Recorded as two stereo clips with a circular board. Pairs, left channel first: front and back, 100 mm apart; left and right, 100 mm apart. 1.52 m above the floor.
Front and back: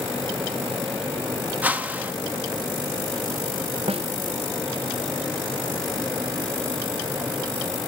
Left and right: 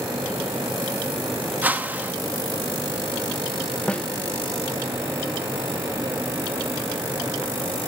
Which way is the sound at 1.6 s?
135° right.